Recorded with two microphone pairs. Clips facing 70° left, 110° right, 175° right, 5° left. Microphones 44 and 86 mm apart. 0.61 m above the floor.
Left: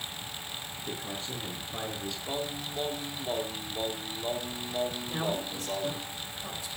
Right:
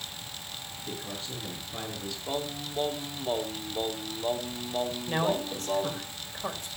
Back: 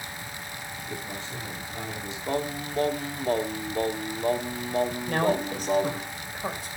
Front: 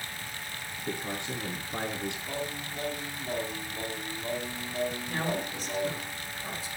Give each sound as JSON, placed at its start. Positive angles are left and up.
{"t": 0.8, "sound": "a man speaking", "azimuth_deg": -15, "distance_m": 6.5}
{"t": 2.3, "sound": "singing", "azimuth_deg": 175, "distance_m": 1.2}
{"t": 5.1, "sound": "a man speaking", "azimuth_deg": -150, "distance_m": 3.0}